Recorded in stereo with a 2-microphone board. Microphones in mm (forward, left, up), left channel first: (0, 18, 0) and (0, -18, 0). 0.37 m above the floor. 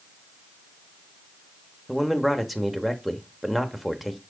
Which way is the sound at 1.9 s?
10° right (ahead or behind).